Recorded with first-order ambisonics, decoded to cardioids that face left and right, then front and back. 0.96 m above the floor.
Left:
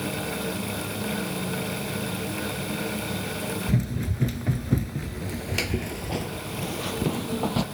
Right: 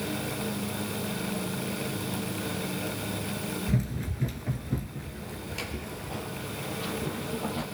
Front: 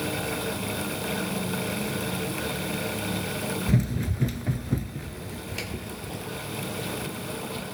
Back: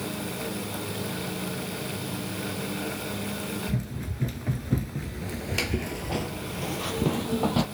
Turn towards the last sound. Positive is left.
turn(degrees=140)